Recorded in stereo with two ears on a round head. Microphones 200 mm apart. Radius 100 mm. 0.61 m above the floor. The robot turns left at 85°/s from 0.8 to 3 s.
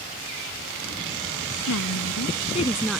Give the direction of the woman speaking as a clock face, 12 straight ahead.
8 o'clock.